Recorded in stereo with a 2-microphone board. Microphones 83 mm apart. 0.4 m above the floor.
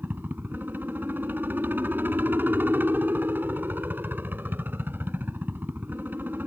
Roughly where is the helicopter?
Right.